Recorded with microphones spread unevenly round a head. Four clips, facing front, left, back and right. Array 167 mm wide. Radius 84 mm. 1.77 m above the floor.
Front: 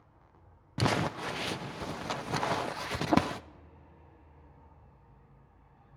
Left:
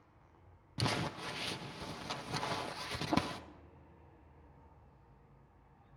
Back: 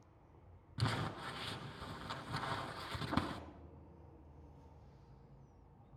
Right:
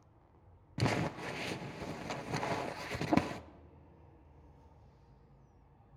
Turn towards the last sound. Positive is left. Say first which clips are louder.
# right 3 dB, front 11 dB
turn(degrees=-10)